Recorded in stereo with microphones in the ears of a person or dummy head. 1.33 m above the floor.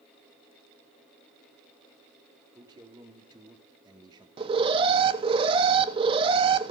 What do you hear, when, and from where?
2.5 s a man speaking: 25° right (ahead or behind), 3 m
4.4 s an alarm: 30° right (ahead or behind), 1.3 m